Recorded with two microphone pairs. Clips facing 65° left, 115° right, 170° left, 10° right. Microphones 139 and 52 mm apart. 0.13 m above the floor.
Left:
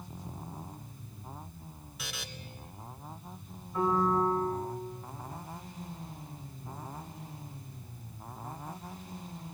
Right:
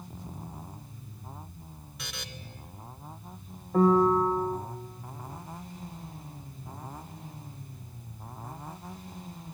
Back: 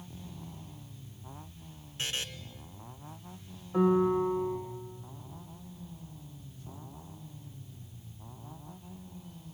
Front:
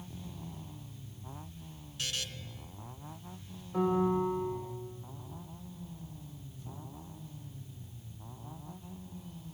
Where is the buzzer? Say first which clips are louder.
Even, back 2 dB; 150° left, 1.1 m.